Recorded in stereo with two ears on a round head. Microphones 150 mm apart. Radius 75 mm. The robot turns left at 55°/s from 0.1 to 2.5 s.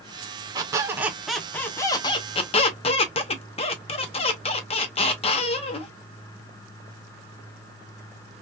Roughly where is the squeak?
Behind right.